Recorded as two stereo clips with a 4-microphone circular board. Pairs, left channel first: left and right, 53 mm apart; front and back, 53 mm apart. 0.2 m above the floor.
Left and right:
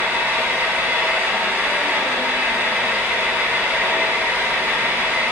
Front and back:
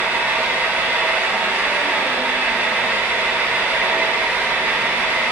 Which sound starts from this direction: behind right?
An engine running, at 0.0 s.